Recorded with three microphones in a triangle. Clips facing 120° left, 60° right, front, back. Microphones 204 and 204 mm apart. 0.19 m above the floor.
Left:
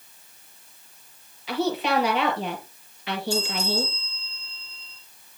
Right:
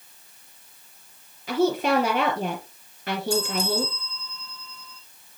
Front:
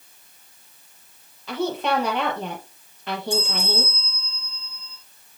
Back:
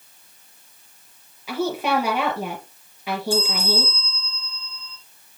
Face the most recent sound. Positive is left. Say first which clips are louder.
# right 2 dB, back 3 dB
turn(degrees=-75)